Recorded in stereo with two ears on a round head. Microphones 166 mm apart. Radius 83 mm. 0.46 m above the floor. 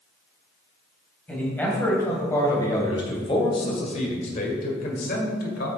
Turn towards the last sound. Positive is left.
turn(degrees=60)  # may be behind; listen again after turning